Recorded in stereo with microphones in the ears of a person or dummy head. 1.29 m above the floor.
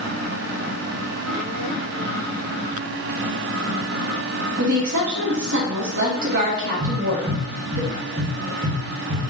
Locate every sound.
4.6 s a woman speaking: 65° right (ahead or behind), 1.9 m
6.8 s tapping: 55° right (ahead or behind), 1.9 m